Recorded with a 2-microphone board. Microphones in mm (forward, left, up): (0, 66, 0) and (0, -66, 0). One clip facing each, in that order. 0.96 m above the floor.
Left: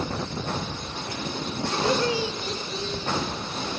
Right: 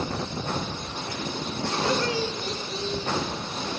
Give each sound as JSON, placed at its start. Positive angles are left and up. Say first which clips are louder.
{"t": 1.7, "sound": "laughter", "louder": "left 2 dB", "side_deg": 25, "distance_m": 2.5}